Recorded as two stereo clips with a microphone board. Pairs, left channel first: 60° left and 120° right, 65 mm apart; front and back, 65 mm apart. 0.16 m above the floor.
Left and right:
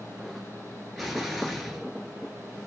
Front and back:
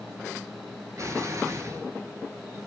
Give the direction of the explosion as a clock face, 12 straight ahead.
7 o'clock.